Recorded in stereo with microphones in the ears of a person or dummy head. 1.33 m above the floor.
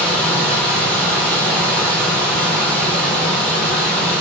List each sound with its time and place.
0.0 s a machine running: 40° right (ahead or behind), 1.7 m